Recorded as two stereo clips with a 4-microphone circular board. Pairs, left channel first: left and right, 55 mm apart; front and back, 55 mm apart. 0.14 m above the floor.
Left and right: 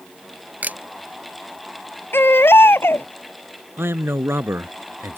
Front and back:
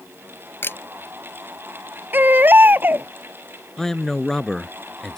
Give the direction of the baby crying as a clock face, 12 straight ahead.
8 o'clock.